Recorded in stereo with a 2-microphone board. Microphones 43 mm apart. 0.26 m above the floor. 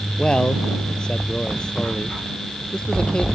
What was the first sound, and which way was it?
A man speaking, 20° left (ahead or behind).